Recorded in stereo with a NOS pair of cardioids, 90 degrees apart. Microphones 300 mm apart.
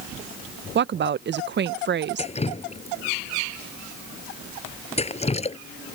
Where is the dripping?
20° left.